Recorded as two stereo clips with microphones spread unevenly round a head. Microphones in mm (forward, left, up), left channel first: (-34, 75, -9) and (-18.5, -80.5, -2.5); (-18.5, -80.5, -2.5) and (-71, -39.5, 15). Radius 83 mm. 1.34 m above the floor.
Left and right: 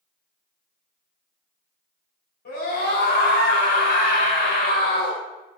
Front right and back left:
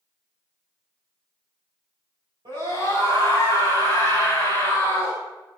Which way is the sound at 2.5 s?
115° left.